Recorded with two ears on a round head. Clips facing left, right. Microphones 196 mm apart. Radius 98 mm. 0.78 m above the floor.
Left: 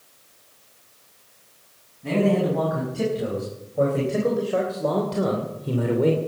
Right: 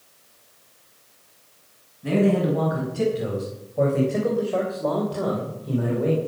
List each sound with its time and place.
2.0 s a man speaking: 10° right (ahead or behind), 5.5 m; by 6.2 s 55° left (ahead or behind), 2.5 m